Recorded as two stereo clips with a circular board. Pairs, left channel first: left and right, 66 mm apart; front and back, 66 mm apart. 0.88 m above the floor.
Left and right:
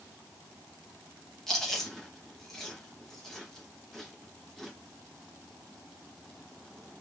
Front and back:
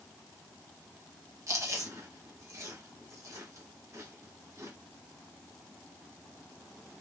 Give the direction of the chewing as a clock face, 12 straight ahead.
6 o'clock.